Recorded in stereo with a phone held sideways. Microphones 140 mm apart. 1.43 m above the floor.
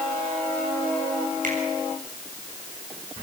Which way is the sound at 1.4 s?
70° right (ahead or behind).